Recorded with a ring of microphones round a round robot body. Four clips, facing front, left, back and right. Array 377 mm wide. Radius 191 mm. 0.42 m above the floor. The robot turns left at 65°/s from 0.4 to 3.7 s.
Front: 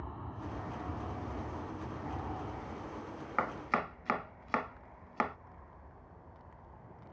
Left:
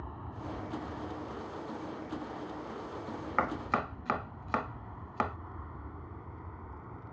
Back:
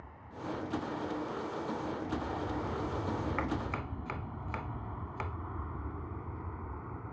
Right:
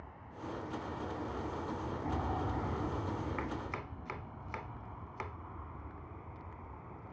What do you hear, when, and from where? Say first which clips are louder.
0.0 s an aircraft: left 4 dB, even; 45° left; by 7.1 s 165° left
3.4 s chopping: left 8 dB, front 2 dB; 75° left; by 5.4 s 55° left